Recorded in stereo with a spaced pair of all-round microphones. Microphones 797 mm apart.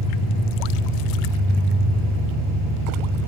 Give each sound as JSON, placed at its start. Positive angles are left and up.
{"t": 0.0, "sound": "an engine running", "side_deg": 20, "distance_m": 3.5}